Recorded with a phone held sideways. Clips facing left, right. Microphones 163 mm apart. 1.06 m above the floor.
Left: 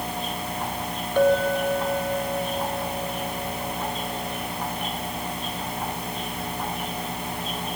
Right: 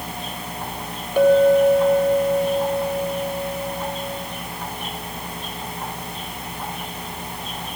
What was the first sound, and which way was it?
A clink, 10° right (ahead or behind).